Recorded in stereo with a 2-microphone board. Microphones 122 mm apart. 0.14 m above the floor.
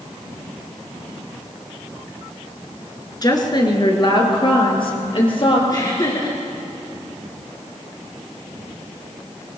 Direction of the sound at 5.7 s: 35° left (ahead or behind).